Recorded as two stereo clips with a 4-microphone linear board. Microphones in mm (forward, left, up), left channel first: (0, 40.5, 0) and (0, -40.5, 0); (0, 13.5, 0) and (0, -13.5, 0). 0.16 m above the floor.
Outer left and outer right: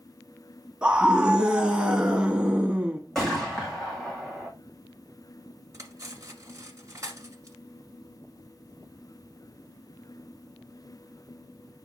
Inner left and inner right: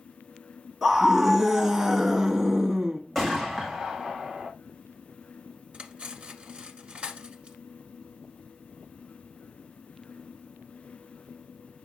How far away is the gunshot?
About 3 m.